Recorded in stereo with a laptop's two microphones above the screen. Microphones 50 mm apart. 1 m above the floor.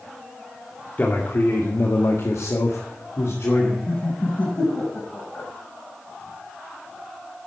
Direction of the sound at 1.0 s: 35° left (ahead or behind).